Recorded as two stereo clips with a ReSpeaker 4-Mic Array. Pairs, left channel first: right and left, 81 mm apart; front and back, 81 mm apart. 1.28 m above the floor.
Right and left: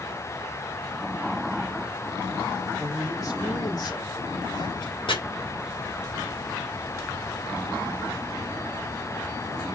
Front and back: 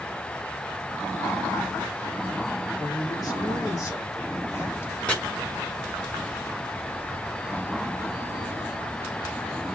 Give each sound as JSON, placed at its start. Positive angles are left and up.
{"t": 2.8, "sound": "a man speaking", "azimuth_deg": -40, "distance_m": 4.0}
{"t": 5.1, "sound": "chopping", "azimuth_deg": -75, "distance_m": 3.0}